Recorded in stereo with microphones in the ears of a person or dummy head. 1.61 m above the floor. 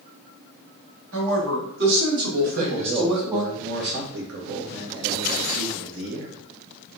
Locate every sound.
1.1 s a woman speaking: 70° right (ahead or behind), 2 m; by 3.4 s 15° right (ahead or behind), 1.4 m
2.4 s a man speaking: 65° right (ahead or behind), 1.1 m